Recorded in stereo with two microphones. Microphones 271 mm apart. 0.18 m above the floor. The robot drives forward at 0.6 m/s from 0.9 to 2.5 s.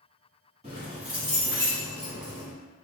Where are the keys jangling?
25° right (ahead or behind), 1.2 m; by 2.5 s 15° right (ahead or behind), 1.8 m.